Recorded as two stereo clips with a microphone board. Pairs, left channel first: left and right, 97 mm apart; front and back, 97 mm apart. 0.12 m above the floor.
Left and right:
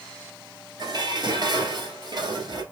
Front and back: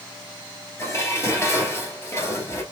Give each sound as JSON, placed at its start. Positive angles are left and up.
{"t": 0.8, "sound": "dishes clattering", "azimuth_deg": -55, "distance_m": 1.9}